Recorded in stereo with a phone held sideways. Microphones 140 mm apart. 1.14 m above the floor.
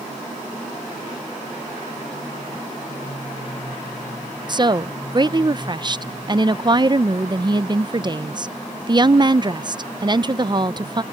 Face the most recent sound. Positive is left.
turn(degrees=-35)  # may be behind; listen again after turning